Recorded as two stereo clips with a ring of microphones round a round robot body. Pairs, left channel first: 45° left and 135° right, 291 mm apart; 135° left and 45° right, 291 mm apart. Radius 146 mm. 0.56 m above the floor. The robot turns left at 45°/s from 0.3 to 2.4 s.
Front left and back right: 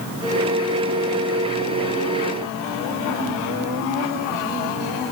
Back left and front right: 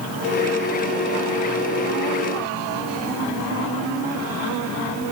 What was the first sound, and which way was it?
Only background noise.